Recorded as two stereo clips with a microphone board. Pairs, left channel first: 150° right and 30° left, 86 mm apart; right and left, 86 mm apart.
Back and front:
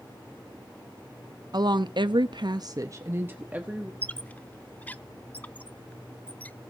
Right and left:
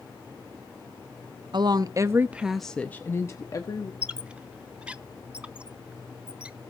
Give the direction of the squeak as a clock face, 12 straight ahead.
7 o'clock.